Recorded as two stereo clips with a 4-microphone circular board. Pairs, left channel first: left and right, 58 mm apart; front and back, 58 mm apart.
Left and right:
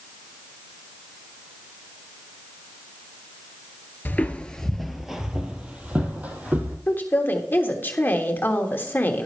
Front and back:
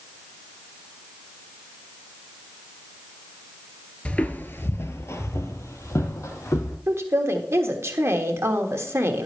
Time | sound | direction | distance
4.0 | footsteps | 55° left | 0.8 m
6.9 | a woman speaking | 140° left | 1.3 m